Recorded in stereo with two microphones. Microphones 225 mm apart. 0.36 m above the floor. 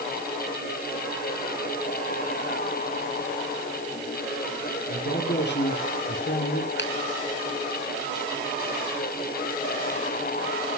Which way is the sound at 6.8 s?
55° left (ahead or behind).